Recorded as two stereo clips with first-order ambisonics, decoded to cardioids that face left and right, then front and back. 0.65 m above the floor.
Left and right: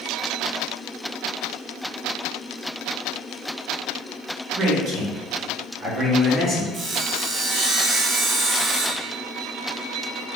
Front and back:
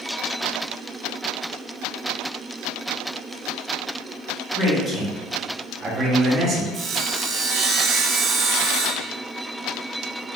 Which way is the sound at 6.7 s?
135° right.